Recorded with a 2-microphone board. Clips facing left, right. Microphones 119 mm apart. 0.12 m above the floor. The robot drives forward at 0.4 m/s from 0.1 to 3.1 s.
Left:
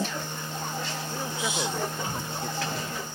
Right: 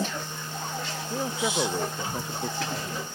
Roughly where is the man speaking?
Right.